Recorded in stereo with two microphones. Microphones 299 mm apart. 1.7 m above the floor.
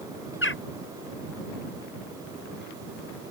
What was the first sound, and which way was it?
A bird, 40° left (ahead or behind).